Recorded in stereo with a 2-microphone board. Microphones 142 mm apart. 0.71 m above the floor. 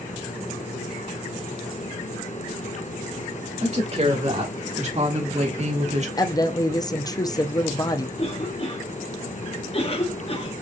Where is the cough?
45° left (ahead or behind), 1.1 m.